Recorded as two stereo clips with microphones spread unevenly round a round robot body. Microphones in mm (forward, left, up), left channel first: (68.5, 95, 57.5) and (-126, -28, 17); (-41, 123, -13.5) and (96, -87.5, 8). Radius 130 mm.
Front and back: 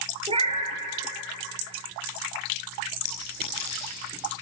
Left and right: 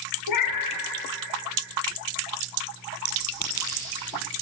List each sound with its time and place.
0.3 s a cat meowing: 145° left, 3 m
3.0 s a clink: 25° right, 8 m